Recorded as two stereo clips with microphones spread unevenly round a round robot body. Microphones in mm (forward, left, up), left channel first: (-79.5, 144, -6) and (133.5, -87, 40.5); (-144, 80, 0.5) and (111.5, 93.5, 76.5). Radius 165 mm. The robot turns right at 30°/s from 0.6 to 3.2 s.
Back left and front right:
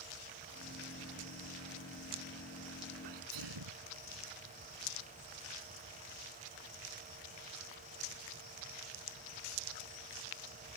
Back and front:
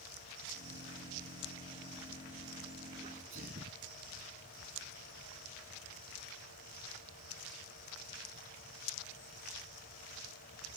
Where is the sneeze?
65° right; by 3.8 s 60° right.